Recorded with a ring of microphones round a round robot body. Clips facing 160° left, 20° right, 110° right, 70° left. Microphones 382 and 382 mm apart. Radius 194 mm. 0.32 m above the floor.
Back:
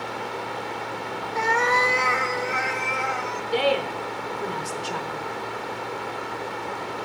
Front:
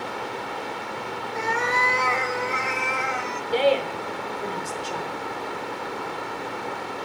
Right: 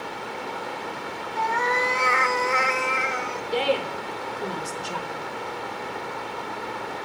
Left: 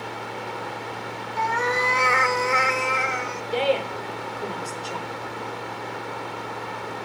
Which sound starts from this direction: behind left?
A cat meowing, at 1.4 s.